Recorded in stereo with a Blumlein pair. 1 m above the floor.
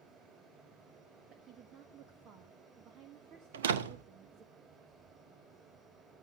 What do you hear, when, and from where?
0.0 s a fan: 20° right, 6 m
1.3 s a woman speaking: 30° right, 1.4 m
3.5 s a door slam: 60° right, 1.1 m